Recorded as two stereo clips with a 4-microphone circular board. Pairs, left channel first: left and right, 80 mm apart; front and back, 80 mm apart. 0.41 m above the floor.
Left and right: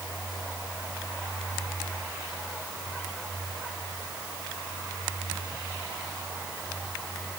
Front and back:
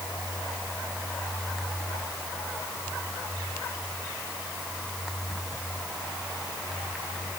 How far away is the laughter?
No laughter in this recording.